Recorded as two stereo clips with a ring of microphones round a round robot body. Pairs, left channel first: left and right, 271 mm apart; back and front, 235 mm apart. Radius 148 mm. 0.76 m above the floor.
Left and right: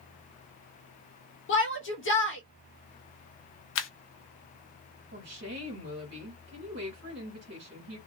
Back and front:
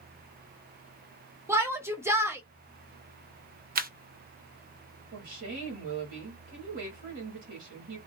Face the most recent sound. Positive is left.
turn(degrees=-45)